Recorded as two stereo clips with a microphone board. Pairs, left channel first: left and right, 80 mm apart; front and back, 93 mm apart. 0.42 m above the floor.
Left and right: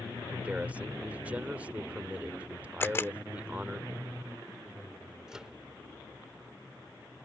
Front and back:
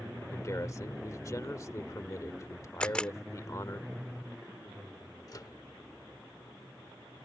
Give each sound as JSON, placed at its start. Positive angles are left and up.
{"t": 0.3, "sound": "a man speaking", "azimuth_deg": -30}
{"t": 2.8, "sound": "a camera shutter", "azimuth_deg": 70}
{"t": 5.3, "sound": "a microwave", "azimuth_deg": -15}